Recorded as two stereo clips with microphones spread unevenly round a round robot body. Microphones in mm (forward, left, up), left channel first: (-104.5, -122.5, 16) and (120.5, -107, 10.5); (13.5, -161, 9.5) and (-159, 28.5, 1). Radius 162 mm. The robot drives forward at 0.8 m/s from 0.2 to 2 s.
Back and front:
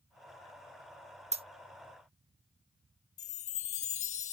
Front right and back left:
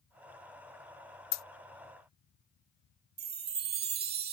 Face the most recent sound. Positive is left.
turn(degrees=140)